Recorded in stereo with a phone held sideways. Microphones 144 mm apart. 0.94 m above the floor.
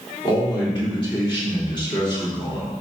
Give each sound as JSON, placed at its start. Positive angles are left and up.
{"t": 0.2, "sound": "a man speaking", "side_deg": 35, "distance_m": 3.5}